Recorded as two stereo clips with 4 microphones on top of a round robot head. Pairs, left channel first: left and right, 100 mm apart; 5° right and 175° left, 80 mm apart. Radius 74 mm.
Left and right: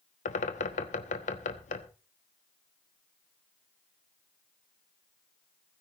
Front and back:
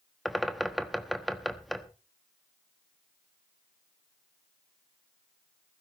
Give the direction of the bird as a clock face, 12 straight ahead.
9 o'clock.